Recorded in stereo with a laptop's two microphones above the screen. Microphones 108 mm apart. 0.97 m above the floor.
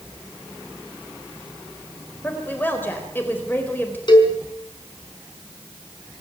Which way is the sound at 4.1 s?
40° left (ahead or behind).